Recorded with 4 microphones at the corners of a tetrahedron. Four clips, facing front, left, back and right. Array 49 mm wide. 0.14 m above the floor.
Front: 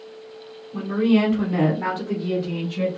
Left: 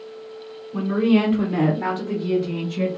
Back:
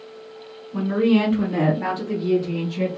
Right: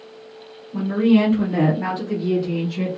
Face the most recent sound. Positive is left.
turn(degrees=10)